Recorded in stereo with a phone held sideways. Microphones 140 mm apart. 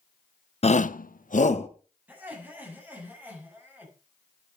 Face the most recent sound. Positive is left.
turn(degrees=-15)  # may be behind; listen again after turning